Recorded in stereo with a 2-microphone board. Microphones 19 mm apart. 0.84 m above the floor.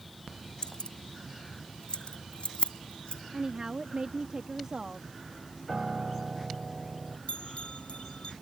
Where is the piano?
30° right (ahead or behind).